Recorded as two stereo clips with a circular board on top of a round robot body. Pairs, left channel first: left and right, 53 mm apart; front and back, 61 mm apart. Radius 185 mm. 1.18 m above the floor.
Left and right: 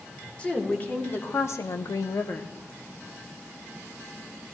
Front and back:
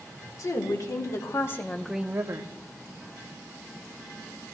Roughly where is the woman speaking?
Ahead left.